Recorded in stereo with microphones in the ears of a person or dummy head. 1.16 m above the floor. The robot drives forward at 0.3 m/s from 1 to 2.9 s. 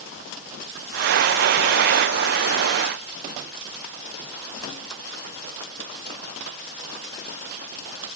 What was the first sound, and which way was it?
Only background noise.